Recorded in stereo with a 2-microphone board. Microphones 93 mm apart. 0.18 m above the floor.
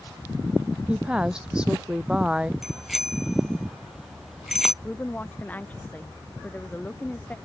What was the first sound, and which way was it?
A woman speaking, 10° right (ahead or behind).